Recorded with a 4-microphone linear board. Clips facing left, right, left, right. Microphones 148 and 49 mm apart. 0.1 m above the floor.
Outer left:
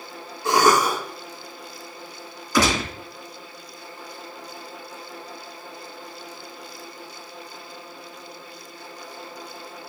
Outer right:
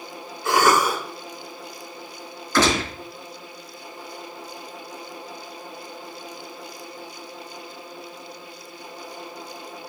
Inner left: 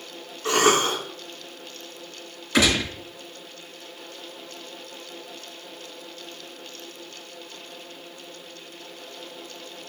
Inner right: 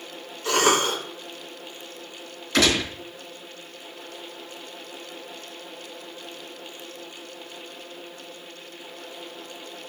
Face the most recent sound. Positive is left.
turn(degrees=15)  # may be behind; listen again after turning